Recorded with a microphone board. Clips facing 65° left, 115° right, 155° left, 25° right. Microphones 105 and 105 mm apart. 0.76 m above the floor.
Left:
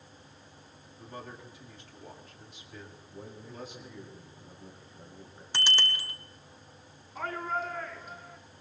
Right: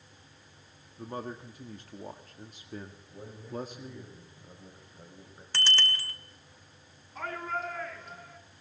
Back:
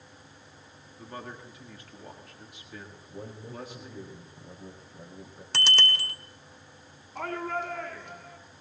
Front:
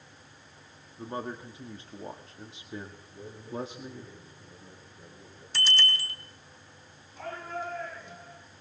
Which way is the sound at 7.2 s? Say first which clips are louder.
Left 2 dB, back 5 dB; 155° left.